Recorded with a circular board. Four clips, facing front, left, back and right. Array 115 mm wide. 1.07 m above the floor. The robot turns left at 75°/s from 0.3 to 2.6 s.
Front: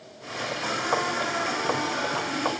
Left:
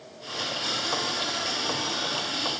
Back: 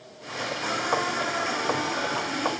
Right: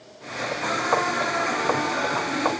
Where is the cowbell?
No cowbell in this recording.